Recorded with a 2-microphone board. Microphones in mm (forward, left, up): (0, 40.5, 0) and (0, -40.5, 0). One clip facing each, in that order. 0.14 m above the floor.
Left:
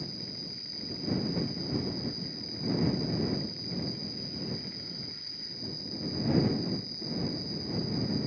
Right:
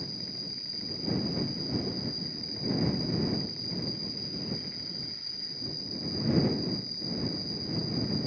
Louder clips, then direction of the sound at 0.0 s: Even; 40° left (ahead or behind).